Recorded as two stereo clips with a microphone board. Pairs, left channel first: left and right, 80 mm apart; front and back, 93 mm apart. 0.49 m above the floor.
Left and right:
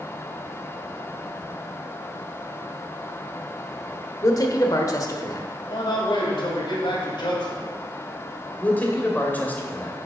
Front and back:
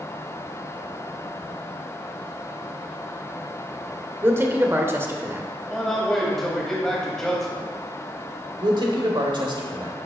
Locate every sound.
4.2 s a man speaking: 120° left, 1.2 m
5.7 s a man speaking: 85° left, 2.5 m
8.6 s a man speaking: 155° left, 1.6 m